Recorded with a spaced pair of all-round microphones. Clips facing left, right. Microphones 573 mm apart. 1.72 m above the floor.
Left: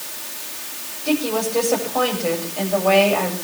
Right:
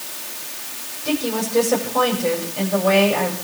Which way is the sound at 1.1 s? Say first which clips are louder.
Left 2 dB; 40° right (ahead or behind).